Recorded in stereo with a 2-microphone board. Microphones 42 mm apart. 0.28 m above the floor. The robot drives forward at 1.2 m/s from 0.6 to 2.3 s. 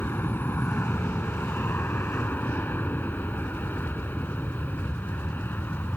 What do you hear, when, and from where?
0.0 s an aircraft: 55° left (ahead or behind)